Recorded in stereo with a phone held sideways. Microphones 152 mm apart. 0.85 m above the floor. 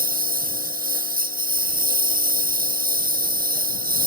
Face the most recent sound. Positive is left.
turn(degrees=-70)  # may be behind; listen again after turning